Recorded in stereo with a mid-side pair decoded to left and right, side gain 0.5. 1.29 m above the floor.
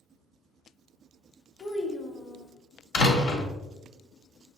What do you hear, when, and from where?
1.6 s a child speaking: 35° left, 0.9 m
2.9 s a door slam: 65° left, 1.2 m